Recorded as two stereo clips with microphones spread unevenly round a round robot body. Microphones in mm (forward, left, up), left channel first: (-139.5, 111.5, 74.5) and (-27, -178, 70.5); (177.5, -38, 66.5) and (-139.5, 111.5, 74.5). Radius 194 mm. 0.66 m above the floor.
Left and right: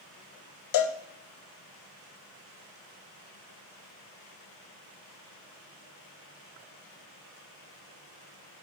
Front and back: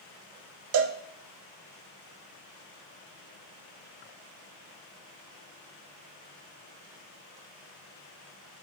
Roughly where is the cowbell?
Behind left.